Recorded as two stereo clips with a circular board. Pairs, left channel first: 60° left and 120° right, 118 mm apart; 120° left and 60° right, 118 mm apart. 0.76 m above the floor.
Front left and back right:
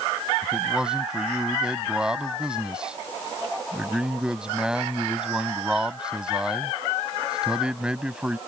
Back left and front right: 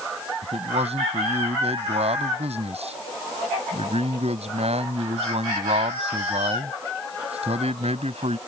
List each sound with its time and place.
0.4 s a man speaking: 35° right